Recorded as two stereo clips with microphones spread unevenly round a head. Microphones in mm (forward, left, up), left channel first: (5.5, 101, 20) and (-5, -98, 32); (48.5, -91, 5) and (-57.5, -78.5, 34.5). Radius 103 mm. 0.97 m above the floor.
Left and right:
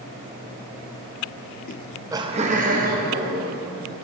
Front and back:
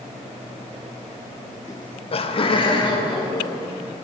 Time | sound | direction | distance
1.7 | laughter | 50° left | 0.5 m